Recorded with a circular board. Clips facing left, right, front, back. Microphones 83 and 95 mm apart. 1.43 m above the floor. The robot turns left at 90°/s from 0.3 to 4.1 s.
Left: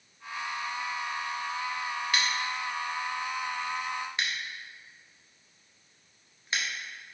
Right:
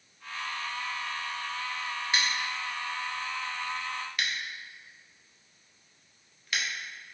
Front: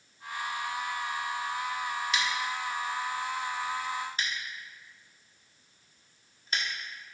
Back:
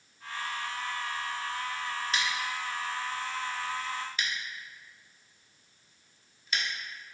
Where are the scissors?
145° right, 0.7 m; by 6.6 s 35° left, 0.7 m.